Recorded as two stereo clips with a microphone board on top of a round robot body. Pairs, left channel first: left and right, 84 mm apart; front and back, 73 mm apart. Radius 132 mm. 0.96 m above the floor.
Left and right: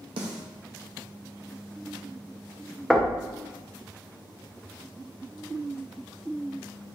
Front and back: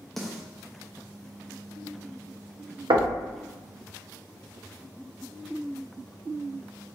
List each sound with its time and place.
0.2 s a snare drum: 85° right, 0.5 m
2.9 s knocking: straight behind, 0.7 m